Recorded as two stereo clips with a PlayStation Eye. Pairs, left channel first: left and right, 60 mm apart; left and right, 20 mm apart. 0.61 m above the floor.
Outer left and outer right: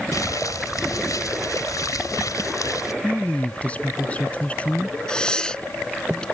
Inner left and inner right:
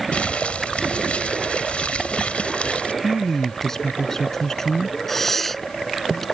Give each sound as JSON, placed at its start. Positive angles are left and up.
{"t": 0.1, "sound": "crumpling", "side_deg": 75}
{"t": 3.0, "sound": "a woman speaking", "side_deg": 20}
{"t": 5.1, "sound": "breathing", "side_deg": 15}